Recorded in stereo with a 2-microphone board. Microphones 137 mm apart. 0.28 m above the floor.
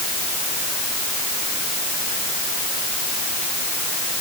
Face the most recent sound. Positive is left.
No sound to turn to.